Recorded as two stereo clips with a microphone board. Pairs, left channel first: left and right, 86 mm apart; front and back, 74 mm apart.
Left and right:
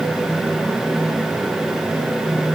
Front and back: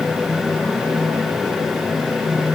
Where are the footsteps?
No footsteps in this recording.